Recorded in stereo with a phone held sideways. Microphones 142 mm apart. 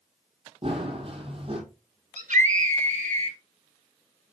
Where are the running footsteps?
40° right (ahead or behind), 2 m.